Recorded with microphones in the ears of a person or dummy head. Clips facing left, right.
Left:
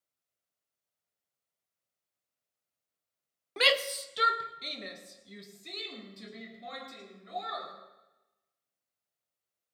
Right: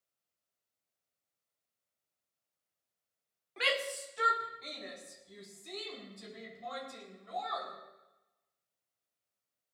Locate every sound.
3.6 s a shout: 65° left (ahead or behind), 1.0 m; by 7.7 s 30° left (ahead or behind), 4.5 m